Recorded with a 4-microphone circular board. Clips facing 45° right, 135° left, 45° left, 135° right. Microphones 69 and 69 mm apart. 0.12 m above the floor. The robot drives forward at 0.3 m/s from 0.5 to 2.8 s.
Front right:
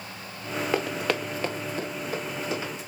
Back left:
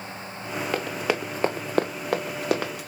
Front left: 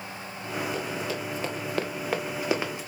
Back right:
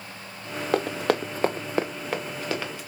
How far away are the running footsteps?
About 0.9 m.